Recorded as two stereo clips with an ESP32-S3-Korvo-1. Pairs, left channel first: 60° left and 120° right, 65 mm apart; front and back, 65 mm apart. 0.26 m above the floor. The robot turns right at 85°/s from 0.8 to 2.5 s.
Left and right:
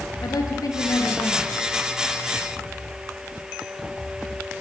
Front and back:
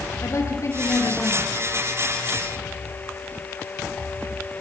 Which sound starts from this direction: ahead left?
A woman speaking, at 0.2 s.